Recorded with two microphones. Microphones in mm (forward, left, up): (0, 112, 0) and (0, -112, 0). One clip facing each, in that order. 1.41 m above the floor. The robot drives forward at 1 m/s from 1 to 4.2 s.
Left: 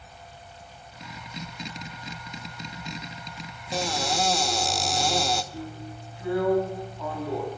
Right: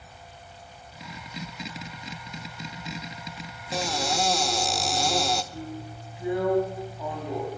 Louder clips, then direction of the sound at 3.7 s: Even; centre (ahead or behind).